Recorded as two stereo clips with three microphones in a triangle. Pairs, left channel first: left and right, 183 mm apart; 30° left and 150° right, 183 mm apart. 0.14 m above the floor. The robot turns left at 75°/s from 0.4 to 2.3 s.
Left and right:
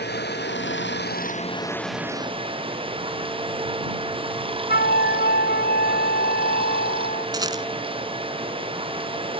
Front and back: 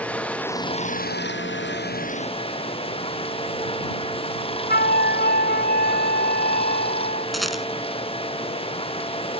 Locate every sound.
0.0 s running water: 115° left; by 9.4 s 30° right
4.7 s a flute: 60° left
7.3 s a rattle: 60° right